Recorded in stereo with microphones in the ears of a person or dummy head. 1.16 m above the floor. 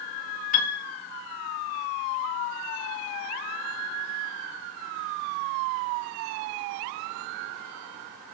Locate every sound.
0.5 s a piano: 35° left (ahead or behind), 0.8 m